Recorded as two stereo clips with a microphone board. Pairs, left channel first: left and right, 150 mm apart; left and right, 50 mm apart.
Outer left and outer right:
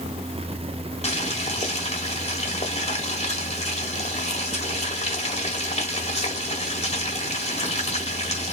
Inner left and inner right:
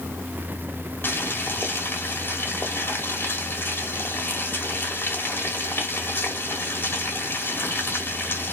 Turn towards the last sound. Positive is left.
turn(degrees=45)  # may be behind; listen again after turning